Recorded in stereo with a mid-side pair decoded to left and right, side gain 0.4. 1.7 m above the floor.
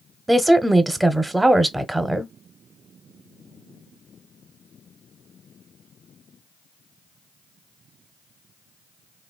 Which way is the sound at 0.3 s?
15° right.